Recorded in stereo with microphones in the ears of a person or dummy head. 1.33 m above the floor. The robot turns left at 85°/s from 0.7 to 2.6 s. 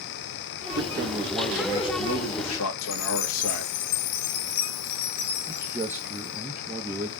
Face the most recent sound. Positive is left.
turn(degrees=-15)  # may be behind; listen again after turning